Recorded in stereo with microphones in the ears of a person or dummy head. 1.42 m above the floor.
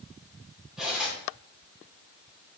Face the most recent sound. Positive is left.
turn(degrees=-5)  # may be behind; listen again after turning